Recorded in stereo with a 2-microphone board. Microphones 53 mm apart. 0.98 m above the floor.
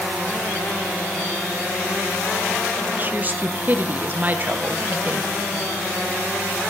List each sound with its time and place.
3.0 s a woman speaking: 30° right (ahead or behind), 0.6 m